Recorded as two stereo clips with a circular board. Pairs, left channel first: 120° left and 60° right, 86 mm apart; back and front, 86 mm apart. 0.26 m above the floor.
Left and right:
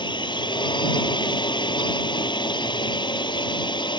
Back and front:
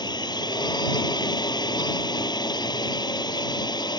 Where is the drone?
145° left.